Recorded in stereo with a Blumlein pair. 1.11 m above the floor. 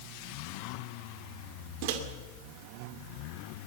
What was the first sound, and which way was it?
A microwave, 45° right.